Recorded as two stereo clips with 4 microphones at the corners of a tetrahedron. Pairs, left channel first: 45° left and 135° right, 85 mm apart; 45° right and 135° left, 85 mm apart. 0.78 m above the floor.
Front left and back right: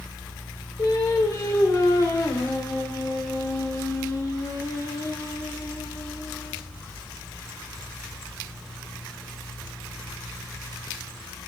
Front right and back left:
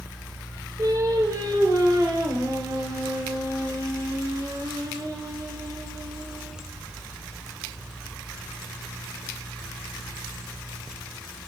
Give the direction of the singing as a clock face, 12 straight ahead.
9 o'clock.